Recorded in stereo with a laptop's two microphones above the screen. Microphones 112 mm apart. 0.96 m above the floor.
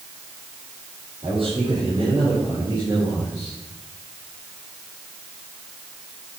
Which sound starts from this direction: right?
A man speaking, at 1.2 s.